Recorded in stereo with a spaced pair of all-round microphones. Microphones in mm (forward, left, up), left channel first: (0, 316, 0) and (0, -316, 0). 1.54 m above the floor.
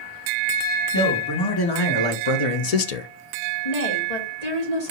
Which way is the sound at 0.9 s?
30° left (ahead or behind).